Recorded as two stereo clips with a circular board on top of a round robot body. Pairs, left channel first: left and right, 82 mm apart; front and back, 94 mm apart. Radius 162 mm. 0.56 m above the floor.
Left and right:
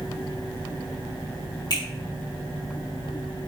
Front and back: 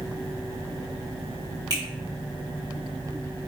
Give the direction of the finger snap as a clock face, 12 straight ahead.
8 o'clock.